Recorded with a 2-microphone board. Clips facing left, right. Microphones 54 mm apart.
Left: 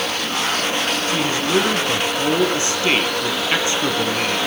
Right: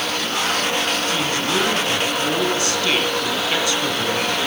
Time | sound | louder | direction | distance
1.1 | a man speaking | left 2 dB | 25° left (ahead or behind) | 5 m